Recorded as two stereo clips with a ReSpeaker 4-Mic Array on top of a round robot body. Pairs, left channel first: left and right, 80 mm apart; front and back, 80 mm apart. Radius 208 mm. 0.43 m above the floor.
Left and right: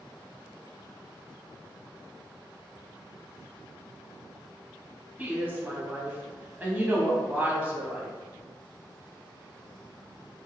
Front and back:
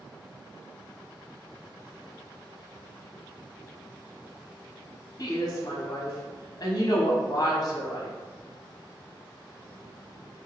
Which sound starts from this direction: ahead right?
A woman speaking, at 5.2 s.